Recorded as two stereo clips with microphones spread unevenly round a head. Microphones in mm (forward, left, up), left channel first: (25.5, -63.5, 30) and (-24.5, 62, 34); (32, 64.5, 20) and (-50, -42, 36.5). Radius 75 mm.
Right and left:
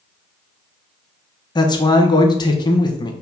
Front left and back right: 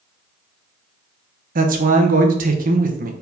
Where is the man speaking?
120° right, 1.1 m.